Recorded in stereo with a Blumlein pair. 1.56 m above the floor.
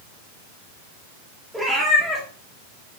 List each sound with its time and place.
1.5 s a cat meowing: 5° right, 2 m